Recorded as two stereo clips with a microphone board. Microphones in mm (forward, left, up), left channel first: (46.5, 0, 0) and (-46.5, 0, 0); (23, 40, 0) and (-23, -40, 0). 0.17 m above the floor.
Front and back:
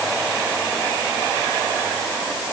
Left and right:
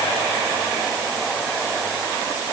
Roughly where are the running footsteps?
I don't hear running footsteps.